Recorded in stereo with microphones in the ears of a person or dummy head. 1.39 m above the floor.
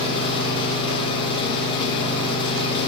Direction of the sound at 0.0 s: 25° left (ahead or behind).